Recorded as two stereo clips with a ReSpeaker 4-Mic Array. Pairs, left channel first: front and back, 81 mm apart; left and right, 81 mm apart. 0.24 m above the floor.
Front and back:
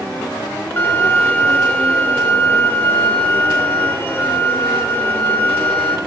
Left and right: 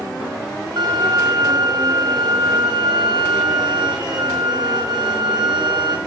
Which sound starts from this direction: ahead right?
A violin, at 0.8 s.